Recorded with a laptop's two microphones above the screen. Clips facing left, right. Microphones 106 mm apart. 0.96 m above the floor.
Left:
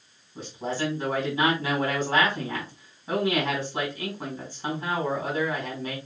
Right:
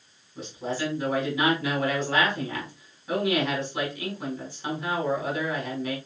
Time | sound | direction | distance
0.3 | a man speaking | 30° left (ahead or behind) | 3.5 m